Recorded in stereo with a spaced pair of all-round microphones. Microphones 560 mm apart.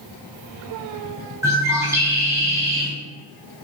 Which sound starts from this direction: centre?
A bird, at 1.4 s.